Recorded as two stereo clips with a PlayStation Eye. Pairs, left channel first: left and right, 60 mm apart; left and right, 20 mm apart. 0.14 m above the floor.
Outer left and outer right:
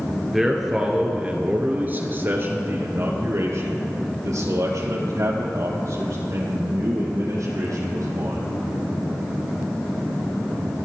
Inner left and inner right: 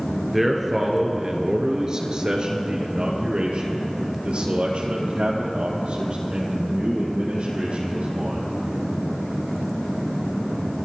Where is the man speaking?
5° right (ahead or behind), 2.5 m; by 8.4 s 75° right (ahead or behind), 6 m.